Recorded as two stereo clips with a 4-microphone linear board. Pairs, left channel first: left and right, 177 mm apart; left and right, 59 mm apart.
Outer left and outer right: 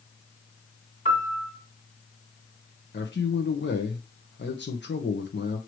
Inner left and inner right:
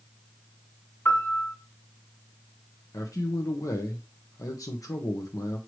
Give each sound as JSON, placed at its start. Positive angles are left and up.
{"t": 1.1, "sound": "a piano", "side_deg": 40, "distance_m": 2.0}
{"t": 2.9, "sound": "a man speaking", "side_deg": 85, "distance_m": 0.8}